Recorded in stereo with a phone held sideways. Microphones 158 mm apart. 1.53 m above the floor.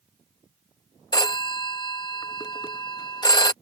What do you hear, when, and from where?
1.1 s a phone ringing: 25° left (ahead or behind)